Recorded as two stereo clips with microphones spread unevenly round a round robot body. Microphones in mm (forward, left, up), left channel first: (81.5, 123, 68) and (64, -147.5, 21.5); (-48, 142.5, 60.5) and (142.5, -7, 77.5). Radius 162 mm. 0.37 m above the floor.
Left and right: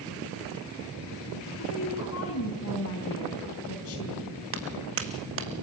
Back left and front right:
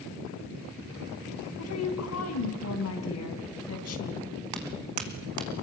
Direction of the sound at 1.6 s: 135° left.